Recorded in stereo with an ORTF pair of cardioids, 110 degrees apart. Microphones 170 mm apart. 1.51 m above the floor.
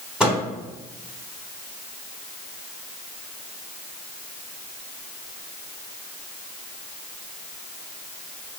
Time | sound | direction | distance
0.2 | a microwave | 5° right | 1.7 m